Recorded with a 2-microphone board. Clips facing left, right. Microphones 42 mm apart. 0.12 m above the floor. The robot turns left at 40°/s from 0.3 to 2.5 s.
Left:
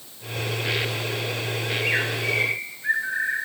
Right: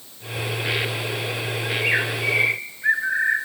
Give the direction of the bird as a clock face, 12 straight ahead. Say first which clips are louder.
Right 2 dB; 1 o'clock.